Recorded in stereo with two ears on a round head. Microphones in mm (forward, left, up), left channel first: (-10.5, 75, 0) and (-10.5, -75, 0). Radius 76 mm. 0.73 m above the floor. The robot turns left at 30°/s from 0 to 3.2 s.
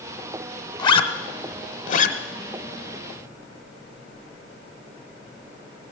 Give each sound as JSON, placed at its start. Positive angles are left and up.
{"t": 0.8, "sound": "a zipper", "side_deg": 25, "distance_m": 0.8}